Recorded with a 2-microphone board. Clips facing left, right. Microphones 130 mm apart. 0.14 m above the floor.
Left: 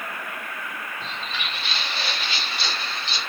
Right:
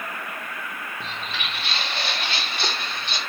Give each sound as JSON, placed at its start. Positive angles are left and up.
{"t": 1.0, "sound": "footsteps", "side_deg": -75, "distance_m": 3.5}